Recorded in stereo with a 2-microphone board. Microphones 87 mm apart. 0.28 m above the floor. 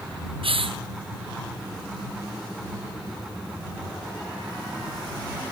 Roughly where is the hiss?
Right.